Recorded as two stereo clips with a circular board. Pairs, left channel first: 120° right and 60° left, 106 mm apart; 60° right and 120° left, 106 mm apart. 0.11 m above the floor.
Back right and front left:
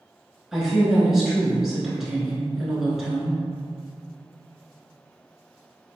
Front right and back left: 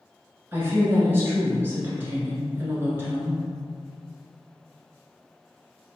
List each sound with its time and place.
0.5 s a woman speaking: 140° left, 1.1 m